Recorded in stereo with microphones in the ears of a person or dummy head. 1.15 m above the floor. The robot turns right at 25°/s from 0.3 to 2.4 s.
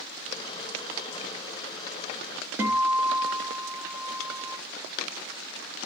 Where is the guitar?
15° right (ahead or behind), 0.9 m.